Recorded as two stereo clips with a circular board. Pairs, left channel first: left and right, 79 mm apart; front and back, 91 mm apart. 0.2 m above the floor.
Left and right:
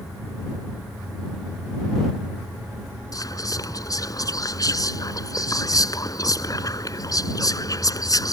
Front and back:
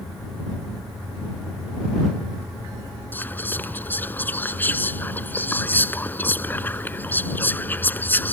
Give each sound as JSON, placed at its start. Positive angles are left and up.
{"t": 3.1, "sound": "whispering", "azimuth_deg": 65}